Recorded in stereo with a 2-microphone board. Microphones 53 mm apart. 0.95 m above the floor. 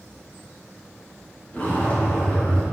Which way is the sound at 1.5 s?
30° left (ahead or behind).